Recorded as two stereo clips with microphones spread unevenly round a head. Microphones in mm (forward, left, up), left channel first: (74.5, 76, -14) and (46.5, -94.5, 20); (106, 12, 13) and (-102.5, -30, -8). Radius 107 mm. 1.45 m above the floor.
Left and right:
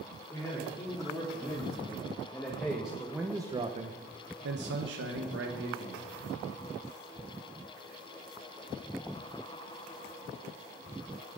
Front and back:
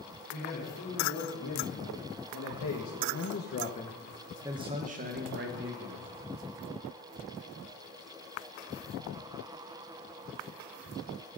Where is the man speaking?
10° left, 3.5 m; by 6.1 s 135° right, 1.9 m.